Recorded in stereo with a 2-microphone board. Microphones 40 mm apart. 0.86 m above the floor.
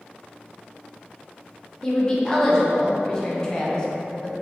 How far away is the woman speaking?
About 0.6 m.